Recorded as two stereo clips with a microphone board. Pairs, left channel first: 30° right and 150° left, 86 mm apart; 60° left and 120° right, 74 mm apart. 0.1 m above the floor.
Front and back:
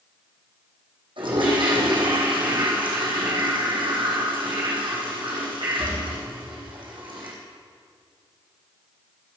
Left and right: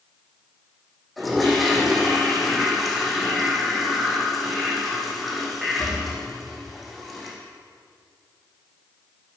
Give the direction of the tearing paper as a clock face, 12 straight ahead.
No tearing paper in this recording.